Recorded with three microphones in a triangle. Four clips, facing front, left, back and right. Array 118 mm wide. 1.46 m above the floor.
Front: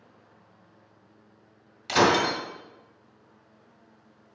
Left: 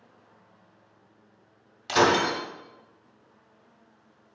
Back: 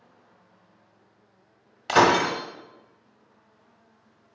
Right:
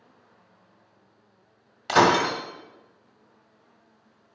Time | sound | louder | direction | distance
1.9 | breaking glass | right 2 dB, back 3 dB | 150° right | 1.4 m